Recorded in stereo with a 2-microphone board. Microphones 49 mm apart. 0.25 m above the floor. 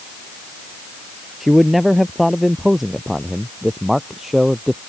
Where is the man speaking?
5° right (ahead or behind).